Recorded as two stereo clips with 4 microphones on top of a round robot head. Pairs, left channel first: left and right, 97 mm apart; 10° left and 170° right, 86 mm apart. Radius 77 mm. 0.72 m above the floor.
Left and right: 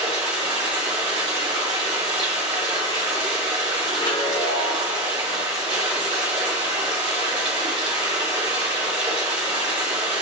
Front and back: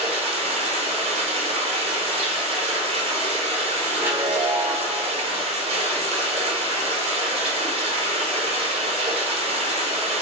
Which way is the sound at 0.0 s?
145° right.